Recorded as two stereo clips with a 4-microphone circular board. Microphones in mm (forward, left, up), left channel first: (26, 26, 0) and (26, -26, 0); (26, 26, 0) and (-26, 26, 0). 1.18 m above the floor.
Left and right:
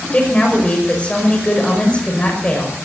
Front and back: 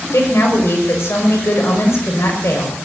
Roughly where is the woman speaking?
Ahead left.